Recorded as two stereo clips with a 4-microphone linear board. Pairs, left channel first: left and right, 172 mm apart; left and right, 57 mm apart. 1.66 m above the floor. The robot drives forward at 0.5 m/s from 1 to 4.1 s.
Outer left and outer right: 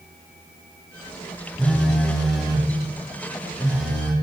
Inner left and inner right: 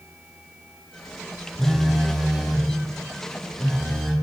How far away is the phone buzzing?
About 0.8 m.